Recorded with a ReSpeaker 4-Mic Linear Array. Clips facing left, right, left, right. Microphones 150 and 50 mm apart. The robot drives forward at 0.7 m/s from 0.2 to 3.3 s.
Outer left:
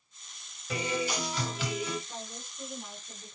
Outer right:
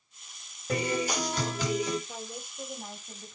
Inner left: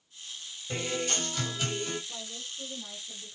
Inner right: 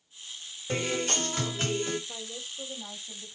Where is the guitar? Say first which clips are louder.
Outer right 3 dB, inner right 3 dB; 45° right (ahead or behind), 4 m; by 2.0 s 40° right (ahead or behind), 4.5 m.